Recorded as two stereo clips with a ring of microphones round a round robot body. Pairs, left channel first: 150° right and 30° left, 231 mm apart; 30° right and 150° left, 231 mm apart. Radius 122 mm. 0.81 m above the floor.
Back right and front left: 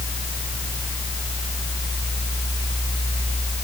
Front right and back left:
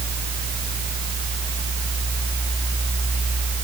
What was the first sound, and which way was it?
Only background noise.